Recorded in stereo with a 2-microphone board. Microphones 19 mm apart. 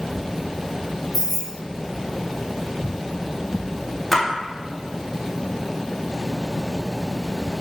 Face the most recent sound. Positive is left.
turn(degrees=0)  # may be behind; listen again after turning